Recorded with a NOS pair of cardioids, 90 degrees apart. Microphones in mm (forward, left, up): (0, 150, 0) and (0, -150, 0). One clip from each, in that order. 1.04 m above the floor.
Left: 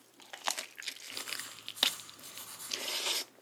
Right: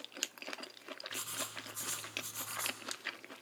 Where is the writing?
30° right, 1.9 m.